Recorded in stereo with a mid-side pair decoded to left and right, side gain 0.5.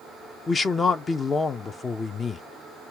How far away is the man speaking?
About 0.5 m.